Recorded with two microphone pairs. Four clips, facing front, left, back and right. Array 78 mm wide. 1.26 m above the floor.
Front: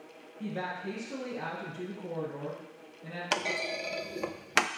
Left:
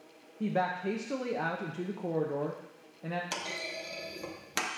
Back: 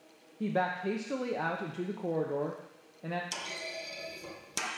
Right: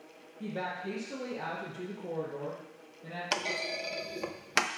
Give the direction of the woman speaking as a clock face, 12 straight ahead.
7 o'clock.